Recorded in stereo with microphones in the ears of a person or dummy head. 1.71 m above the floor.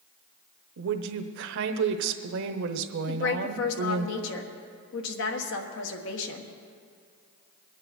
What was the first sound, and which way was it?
A woman speaking, 70° right (ahead or behind).